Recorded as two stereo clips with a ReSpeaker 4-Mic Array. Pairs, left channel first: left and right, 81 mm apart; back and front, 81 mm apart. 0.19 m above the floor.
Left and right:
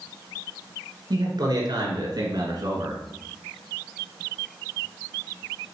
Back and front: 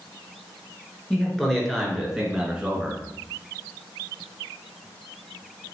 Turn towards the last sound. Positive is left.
turn(degrees=-70)